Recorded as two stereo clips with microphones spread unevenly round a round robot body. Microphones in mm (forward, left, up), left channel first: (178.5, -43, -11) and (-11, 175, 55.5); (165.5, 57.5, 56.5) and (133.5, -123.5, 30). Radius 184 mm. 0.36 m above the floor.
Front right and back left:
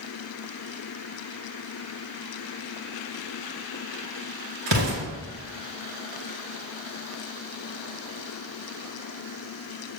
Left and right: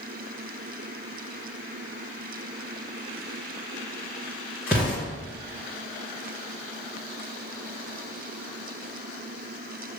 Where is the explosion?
175° left, 2 m.